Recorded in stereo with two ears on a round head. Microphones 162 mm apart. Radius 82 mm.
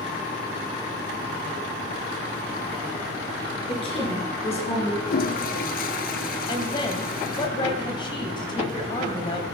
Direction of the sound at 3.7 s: 30° left (ahead or behind).